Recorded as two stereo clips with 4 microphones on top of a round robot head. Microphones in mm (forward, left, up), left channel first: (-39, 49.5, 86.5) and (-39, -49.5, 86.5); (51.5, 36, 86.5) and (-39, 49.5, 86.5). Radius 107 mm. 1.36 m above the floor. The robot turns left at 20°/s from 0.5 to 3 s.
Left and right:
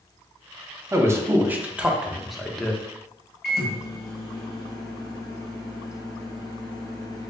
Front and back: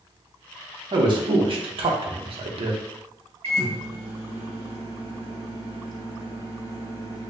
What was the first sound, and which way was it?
A man speaking, 150° right.